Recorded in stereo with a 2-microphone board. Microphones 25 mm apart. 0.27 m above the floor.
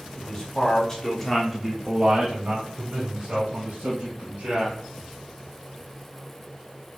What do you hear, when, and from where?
0.2 s a man speaking: 35° left (ahead or behind), 1.5 m; by 4.8 s 60° right (ahead or behind), 2.5 m